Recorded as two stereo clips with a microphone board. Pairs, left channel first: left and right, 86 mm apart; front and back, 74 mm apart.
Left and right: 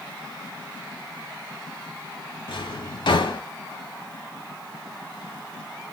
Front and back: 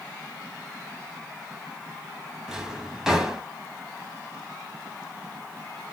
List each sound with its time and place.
2.5 s a drawer: 95° left, 0.9 m